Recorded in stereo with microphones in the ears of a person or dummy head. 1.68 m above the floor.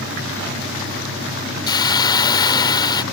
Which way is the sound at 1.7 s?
20° left (ahead or behind).